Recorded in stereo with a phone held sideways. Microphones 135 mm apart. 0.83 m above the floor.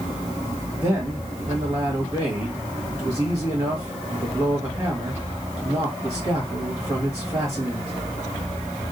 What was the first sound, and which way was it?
A man speaking, 25° right (ahead or behind).